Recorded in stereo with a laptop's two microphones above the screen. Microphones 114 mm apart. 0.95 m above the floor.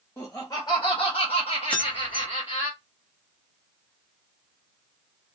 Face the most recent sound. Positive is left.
turn(degrees=15)  # may be behind; listen again after turning